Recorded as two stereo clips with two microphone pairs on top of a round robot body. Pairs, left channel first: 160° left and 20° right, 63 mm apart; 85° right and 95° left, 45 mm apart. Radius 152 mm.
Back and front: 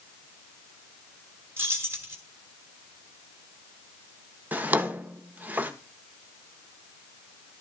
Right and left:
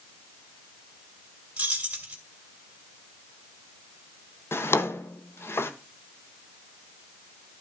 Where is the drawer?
85° right, 1.1 m.